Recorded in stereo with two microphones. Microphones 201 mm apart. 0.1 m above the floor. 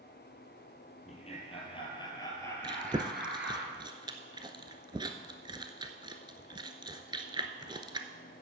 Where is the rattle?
No rattle in this recording.